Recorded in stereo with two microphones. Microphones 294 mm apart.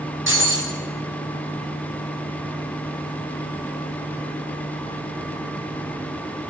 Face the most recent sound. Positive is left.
turn(degrees=-40)  # may be behind; listen again after turning